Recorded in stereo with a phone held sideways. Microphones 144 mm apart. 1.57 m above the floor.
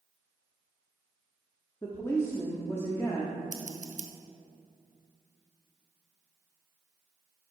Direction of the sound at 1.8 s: 20° left (ahead or behind).